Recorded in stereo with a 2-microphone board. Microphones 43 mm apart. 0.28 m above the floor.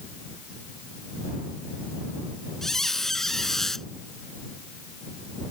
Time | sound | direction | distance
2.6 | a squeak | 10° left (ahead or behind) | ?